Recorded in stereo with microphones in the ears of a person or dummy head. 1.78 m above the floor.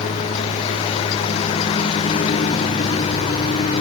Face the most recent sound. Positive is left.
turn(degrees=35)  # may be behind; listen again after turning